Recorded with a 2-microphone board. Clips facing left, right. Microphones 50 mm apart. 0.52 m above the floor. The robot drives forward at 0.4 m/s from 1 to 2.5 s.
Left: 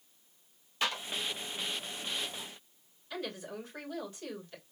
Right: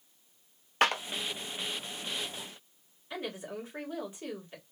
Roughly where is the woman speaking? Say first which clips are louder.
Right 2 dB; right.